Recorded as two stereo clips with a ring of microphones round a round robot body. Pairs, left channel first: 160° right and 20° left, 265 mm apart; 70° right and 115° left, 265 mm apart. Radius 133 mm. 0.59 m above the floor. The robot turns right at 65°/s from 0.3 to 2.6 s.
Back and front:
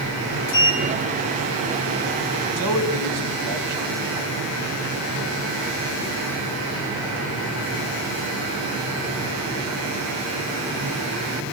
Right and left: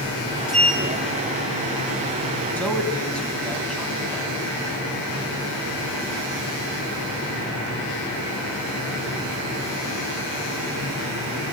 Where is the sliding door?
160° right, 3.5 m; by 1.9 s 70° right, 3.5 m.